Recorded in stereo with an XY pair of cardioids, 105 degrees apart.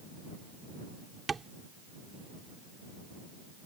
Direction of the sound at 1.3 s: 30° right.